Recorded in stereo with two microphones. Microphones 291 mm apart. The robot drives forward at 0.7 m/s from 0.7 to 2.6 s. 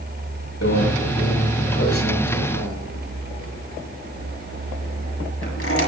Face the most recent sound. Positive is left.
turn(degrees=50)  # may be behind; listen again after turning